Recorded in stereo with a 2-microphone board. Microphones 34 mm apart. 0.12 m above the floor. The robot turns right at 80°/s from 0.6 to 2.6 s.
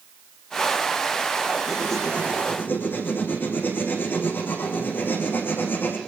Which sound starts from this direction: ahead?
Writing, at 1.7 s.